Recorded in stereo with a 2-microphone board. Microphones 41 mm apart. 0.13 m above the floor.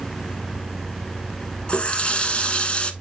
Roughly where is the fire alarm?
No fire alarm in this recording.